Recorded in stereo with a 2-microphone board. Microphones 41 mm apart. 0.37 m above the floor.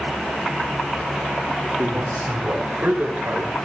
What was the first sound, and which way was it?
A man speaking, 55° right (ahead or behind).